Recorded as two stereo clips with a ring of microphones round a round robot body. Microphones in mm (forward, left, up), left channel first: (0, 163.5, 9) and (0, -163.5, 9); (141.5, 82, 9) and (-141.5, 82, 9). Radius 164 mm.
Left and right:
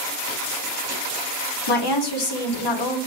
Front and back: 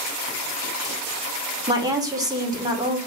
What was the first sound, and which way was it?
A woman speaking, 100° left.